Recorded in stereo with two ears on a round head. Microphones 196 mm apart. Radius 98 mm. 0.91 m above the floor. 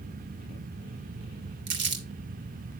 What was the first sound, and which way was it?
Crumpling, 55° right (ahead or behind).